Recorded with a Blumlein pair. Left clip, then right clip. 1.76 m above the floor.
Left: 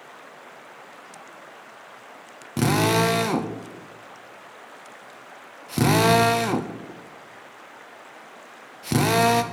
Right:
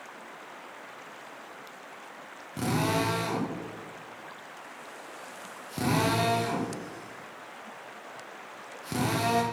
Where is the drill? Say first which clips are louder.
Left 8 dB; 60° left, 0.6 m.